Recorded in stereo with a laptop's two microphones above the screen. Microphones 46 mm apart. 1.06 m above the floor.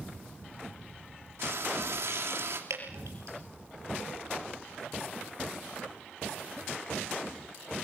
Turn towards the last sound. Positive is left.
turn(degrees=-80)